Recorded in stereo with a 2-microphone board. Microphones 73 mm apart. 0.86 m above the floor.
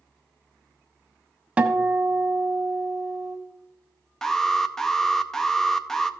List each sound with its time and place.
1.6 s a guitar: 15° right (ahead or behind), 1.0 m
4.2 s an alarm: 10° left (ahead or behind), 0.6 m